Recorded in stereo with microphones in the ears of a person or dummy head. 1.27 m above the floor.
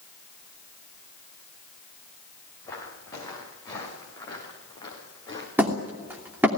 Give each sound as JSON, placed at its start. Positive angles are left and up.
{"t": 2.6, "sound": "footsteps", "side_deg": 25, "distance_m": 7.0}
{"t": 5.6, "sound": "hammering", "side_deg": 0, "distance_m": 3.0}